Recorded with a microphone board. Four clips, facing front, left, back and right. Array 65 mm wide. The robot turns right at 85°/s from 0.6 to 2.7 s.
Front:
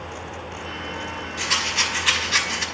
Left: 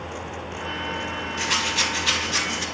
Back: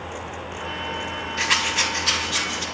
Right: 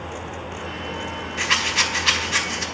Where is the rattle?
130° right, 0.8 m; by 2.6 s 20° right, 0.8 m.